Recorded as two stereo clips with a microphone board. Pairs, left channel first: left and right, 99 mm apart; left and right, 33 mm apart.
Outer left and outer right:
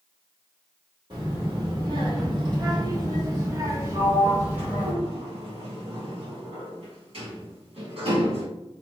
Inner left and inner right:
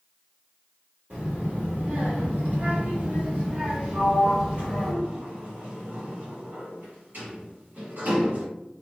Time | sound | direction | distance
1.1 | a child speaking | 45° right (ahead or behind) | 1.8 m
3.9 | a sliding door | 65° right (ahead or behind) | 1.4 m